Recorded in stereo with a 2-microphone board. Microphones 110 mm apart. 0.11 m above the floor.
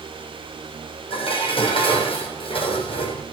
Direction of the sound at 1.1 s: 55° left (ahead or behind).